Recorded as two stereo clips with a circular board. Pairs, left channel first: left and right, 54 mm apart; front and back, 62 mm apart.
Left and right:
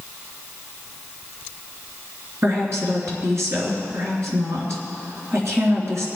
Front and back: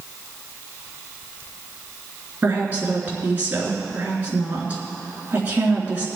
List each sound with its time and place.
2.4 s a woman speaking: 120° right, 3.5 m